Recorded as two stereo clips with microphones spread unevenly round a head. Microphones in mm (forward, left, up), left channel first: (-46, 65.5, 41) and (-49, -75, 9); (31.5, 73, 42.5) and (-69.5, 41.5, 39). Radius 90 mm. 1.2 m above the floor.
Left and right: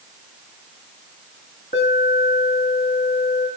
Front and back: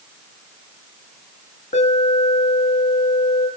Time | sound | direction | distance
1.7 | an alarm | 35° left | 8 m